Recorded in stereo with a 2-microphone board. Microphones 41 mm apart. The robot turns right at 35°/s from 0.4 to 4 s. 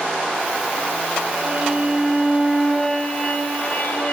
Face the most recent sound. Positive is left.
turn(degrees=60)